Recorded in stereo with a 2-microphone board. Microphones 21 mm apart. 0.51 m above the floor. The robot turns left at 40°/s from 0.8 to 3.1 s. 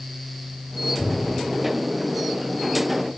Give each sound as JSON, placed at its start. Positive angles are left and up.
{"t": 1.0, "sound": "a cupboard door", "side_deg": 65, "distance_m": 5.0}